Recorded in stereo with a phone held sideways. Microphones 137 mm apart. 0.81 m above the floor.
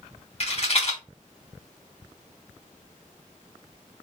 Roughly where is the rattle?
Left.